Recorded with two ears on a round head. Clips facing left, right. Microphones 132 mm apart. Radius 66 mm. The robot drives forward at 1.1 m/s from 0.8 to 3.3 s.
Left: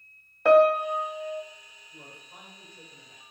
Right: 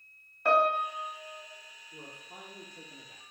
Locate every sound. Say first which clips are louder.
0.5 s a piano: left 9 dB; 55° left (ahead or behind), 0.6 m; by 1.4 s 30° left (ahead or behind), 1.0 m
1.9 s a man speaking: right 1 dB; 35° right (ahead or behind), 1.9 m; by 3.2 s 65° right (ahead or behind), 1.2 m